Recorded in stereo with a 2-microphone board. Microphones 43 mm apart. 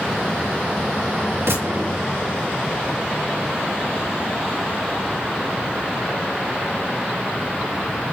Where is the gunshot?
75° right (ahead or behind), 5 m.